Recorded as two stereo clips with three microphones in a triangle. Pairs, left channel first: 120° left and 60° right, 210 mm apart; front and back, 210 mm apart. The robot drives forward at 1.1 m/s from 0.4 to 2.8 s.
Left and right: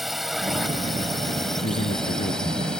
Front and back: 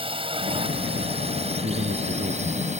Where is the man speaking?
140° left; by 2.7 s 150° left.